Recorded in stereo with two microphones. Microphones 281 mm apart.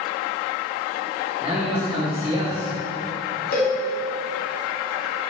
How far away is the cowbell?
About 2.0 m.